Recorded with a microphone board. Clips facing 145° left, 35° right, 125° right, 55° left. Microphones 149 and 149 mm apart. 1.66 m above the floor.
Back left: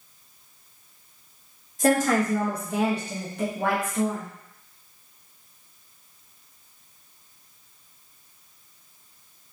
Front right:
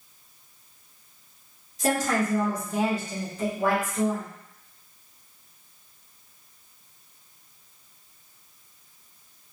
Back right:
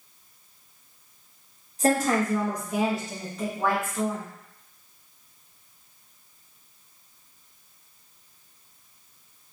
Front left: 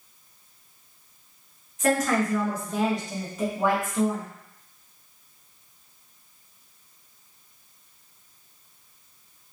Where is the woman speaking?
175° right, 1.1 m; by 4.3 s 115° left, 1.2 m.